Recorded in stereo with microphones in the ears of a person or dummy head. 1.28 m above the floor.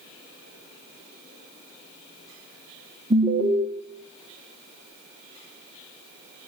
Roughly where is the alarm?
Right.